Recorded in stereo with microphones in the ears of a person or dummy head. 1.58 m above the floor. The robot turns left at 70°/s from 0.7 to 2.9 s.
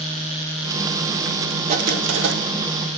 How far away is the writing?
About 0.8 m.